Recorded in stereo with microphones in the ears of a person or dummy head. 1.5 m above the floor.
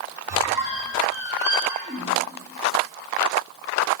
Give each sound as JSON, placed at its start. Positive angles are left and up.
{"t": 0.3, "sound": "a squeak", "side_deg": -10, "distance_m": 2.5}